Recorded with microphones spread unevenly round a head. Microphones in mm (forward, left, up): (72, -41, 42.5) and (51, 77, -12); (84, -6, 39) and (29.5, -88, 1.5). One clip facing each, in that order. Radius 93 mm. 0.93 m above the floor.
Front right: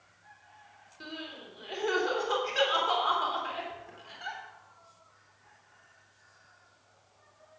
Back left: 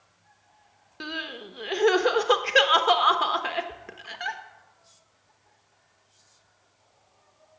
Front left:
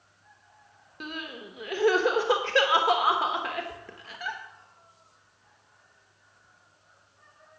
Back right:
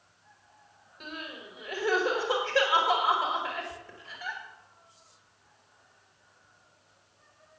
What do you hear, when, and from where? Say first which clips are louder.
1.0 s crying: back left 6 dB, front left 3 dB; 85° left, 1.0 m